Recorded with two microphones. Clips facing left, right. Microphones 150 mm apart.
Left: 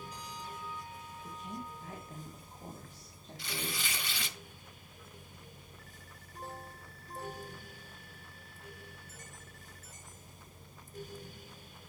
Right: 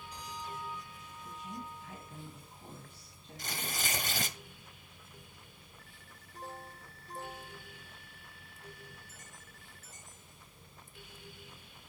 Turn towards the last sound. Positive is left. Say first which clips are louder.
# even
turn(degrees=-45)  # may be behind; listen again after turning